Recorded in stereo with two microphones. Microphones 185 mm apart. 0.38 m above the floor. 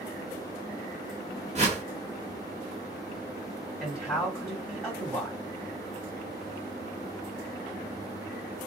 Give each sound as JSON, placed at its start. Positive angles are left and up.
{"t": 1.6, "sound": "a whoosh", "side_deg": -35, "distance_m": 1.0}
{"t": 3.8, "sound": "a man speaking", "side_deg": 0, "distance_m": 2.5}